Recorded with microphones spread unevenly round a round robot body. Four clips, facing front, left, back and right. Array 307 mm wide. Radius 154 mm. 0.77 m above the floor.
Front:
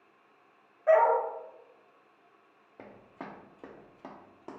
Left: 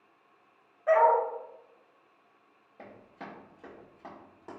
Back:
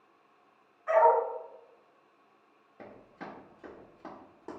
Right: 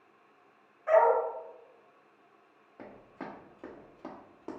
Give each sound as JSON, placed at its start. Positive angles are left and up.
{"t": 0.9, "sound": "a dog barking", "azimuth_deg": 25, "distance_m": 1.2}
{"t": 2.8, "sound": "running footsteps", "azimuth_deg": -15, "distance_m": 1.2}